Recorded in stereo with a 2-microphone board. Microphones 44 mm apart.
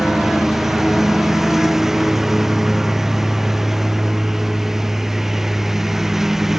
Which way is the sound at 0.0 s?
10° right (ahead or behind).